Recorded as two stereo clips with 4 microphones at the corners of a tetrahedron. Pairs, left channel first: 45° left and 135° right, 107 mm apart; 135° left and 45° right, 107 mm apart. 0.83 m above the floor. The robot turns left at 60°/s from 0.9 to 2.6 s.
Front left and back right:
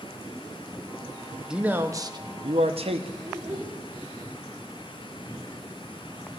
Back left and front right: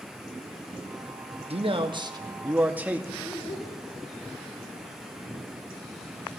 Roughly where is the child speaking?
Behind.